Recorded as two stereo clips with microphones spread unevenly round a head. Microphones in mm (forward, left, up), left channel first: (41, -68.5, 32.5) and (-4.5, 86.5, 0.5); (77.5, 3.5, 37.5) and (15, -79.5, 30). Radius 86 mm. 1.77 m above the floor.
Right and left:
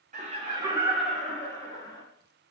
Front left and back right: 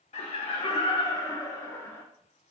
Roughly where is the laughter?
Ahead left.